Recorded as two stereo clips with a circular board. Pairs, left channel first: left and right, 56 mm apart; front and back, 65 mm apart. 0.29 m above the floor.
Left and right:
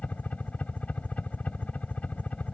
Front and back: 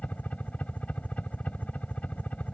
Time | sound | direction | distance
0.0 | a helicopter | 50° left | ?